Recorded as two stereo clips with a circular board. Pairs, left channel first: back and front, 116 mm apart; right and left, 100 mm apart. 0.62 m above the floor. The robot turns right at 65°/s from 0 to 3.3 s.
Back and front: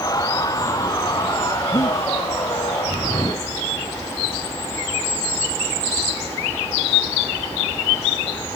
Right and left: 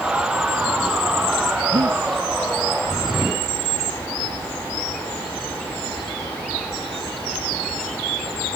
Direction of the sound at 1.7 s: 125° left.